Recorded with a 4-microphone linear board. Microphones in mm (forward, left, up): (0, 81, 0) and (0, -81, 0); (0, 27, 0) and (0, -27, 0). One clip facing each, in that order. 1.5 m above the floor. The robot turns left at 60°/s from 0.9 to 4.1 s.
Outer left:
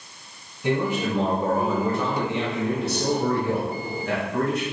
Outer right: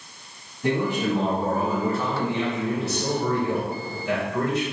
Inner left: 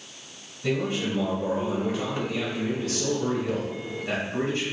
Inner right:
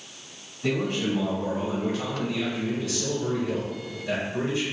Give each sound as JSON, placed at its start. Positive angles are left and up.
{"t": 0.6, "sound": "a man speaking", "azimuth_deg": -115, "distance_m": 2.0}